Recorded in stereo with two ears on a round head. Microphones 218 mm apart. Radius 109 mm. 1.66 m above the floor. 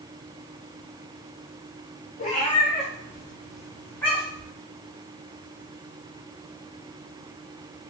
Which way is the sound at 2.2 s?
35° left (ahead or behind).